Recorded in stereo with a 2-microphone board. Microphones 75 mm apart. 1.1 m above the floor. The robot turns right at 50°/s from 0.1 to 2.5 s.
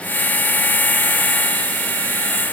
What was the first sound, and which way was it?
Only background noise.